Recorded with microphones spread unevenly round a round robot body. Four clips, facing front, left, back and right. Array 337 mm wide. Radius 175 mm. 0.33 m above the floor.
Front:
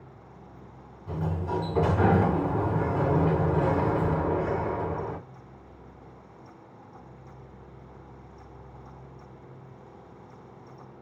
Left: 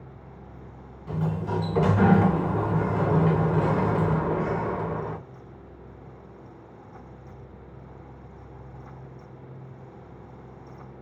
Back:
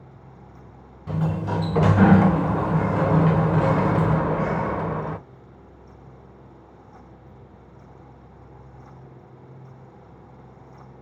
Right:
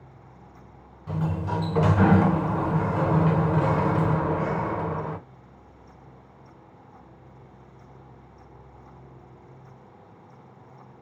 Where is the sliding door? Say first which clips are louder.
Even, back 5 dB; 170° right, 0.5 m.